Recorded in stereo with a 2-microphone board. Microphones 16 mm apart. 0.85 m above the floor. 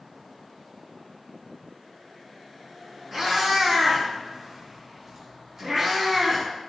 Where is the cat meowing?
35° right (ahead or behind), 1.2 m; by 6.5 s 25° right (ahead or behind), 1.4 m.